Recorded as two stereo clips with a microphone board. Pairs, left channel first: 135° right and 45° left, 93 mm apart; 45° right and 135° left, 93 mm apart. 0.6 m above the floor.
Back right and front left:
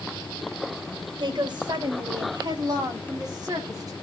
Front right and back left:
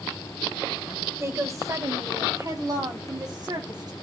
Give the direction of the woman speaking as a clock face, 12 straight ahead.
9 o'clock.